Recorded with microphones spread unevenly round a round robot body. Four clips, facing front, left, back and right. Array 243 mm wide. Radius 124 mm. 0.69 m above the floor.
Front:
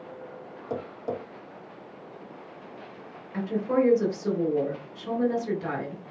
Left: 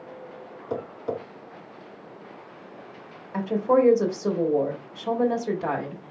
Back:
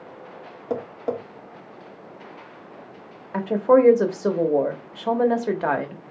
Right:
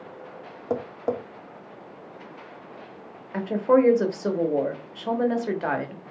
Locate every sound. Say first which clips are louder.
0.7 s tapping: right 3 dB, back 5 dB; 125° right, 1.2 m
3.3 s a woman speaking: right 1 dB, back 8 dB; 175° right, 1.2 m